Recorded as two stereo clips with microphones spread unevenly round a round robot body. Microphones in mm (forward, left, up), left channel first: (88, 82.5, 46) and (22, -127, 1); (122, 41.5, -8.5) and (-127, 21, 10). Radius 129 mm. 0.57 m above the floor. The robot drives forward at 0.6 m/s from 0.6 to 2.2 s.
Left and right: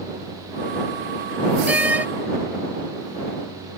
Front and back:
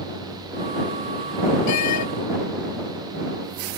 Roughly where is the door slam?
Ahead right.